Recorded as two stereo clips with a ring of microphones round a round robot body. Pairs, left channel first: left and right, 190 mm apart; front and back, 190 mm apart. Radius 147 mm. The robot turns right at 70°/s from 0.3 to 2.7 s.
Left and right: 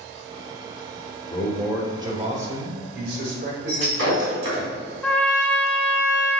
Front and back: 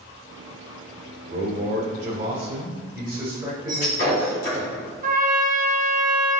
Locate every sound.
1.2 s a man speaking: 150° left, 2.5 m; by 4.7 s 110° right, 2.5 m
3.7 s breaking glass: 60° right, 2.5 m
5.0 s a trumpet: 170° left, 1.3 m